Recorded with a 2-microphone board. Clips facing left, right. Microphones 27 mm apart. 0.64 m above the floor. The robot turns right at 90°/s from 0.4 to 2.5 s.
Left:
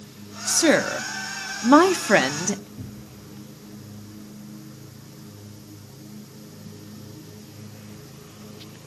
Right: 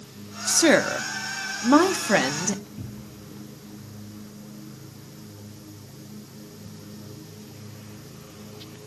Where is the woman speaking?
10° right (ahead or behind), 0.6 m; by 2.7 s 10° left (ahead or behind), 0.6 m.